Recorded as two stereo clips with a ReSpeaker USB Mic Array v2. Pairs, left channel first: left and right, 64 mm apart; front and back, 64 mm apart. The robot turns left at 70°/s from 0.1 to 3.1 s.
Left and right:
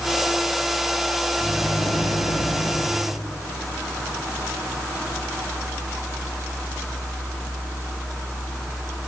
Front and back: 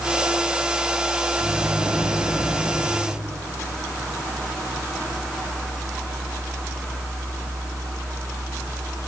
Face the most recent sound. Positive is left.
turn(degrees=5)